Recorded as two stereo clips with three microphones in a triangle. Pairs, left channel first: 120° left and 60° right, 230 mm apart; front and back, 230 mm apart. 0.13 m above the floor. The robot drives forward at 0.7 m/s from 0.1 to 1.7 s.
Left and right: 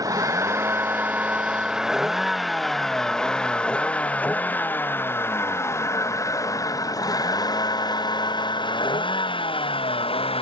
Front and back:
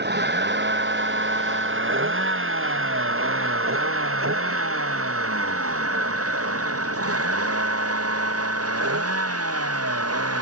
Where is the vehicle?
135° right; by 10.4 s 175° right.